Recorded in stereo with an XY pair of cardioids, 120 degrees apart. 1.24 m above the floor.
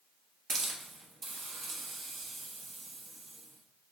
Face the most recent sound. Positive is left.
turn(degrees=-45)